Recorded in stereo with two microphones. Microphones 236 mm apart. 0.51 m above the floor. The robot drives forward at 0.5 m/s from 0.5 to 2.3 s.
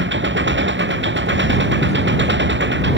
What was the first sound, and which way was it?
An engine running, 55° right (ahead or behind).